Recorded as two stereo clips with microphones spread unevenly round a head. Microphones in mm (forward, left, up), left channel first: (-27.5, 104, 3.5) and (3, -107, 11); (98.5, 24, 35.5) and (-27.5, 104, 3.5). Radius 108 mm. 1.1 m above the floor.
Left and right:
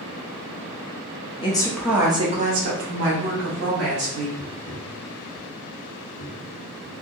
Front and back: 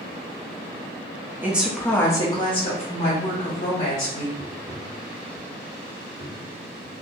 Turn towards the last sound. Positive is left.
turn(degrees=-25)